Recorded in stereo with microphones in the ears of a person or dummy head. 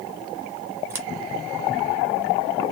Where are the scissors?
10° right (ahead or behind), 1.2 m.